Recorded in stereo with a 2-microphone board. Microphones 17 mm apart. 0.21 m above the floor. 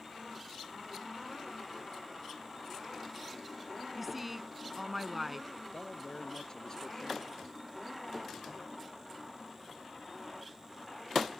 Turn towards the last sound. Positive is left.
turn(degrees=40)  # may be behind; listen again after turning